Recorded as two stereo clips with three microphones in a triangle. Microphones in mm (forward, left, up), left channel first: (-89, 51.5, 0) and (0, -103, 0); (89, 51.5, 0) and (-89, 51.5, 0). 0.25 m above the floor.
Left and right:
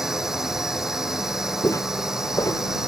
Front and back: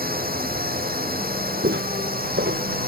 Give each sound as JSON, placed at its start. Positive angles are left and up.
{"t": 0.0, "sound": "a drone", "azimuth_deg": -150}
{"t": 1.6, "sound": "footsteps", "azimuth_deg": -165}